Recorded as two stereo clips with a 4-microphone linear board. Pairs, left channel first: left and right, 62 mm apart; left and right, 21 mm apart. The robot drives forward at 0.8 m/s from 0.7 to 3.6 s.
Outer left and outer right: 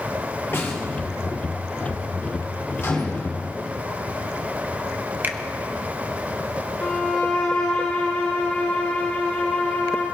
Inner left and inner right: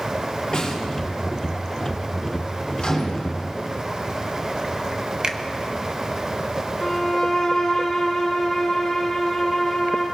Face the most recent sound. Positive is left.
turn(degrees=15)  # may be behind; listen again after turning